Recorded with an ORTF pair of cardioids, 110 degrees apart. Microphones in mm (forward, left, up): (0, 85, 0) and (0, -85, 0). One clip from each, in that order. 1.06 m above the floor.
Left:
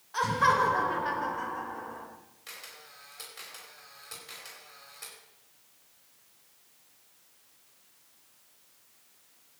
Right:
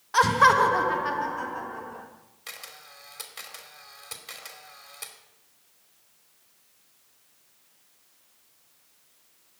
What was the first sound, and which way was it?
Laughter, 60° right.